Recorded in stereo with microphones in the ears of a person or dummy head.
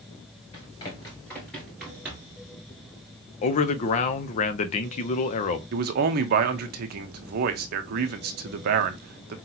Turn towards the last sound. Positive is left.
turn(degrees=-50)  # may be behind; listen again after turning